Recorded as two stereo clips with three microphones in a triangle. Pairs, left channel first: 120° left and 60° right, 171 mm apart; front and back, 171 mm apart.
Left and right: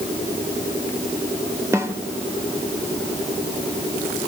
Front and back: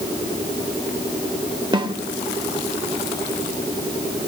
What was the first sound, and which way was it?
A snare drum, 130° right.